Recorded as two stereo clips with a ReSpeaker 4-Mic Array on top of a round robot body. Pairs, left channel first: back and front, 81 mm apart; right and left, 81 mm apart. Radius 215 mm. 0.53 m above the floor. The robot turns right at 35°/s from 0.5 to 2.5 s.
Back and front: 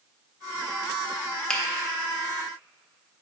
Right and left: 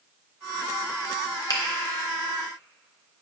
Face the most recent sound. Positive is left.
turn(degrees=-65)